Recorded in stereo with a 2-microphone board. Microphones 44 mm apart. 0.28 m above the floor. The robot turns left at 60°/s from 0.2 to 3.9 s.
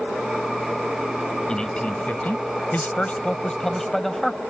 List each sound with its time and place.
1.5 s a man speaking: 155° left; by 4.4 s 10° left